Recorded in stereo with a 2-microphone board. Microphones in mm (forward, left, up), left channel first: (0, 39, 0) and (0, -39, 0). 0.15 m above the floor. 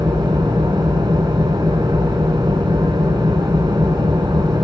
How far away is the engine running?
About 5 m.